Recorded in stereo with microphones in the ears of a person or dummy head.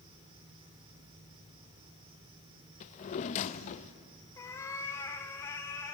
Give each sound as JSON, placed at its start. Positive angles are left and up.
{"t": 0.0, "sound": "an insect", "side_deg": -30, "distance_m": 4.0}
{"t": 2.8, "sound": "a drawer", "side_deg": 40, "distance_m": 0.6}
{"t": 4.4, "sound": "a cat meowing", "side_deg": 20, "distance_m": 1.0}